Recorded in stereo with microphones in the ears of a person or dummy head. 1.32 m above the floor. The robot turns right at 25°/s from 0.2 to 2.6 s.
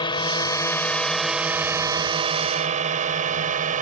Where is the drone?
30° left (ahead or behind); by 3.8 s 40° right (ahead or behind).